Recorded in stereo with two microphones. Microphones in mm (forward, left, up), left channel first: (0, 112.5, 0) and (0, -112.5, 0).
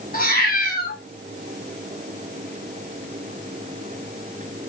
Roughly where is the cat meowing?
Left.